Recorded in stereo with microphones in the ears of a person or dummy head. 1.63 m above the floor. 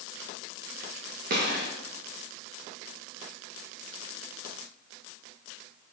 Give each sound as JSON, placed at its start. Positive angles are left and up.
{"t": 1.3, "sound": "a gunshot", "side_deg": -55, "distance_m": 1.5}